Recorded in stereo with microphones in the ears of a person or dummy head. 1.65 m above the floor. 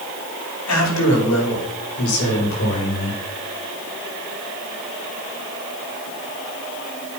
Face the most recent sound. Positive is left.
turn(degrees=65)  # may be behind; listen again after turning